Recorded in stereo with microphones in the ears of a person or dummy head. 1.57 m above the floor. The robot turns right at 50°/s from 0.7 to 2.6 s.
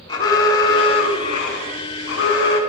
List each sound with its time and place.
0.1 s an alarm: 25° left, 2.5 m; by 2.6 s 120° left, 2.5 m